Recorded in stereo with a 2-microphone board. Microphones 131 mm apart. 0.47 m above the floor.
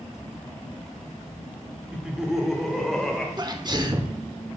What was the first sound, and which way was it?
Laughter, 10° right (ahead or behind).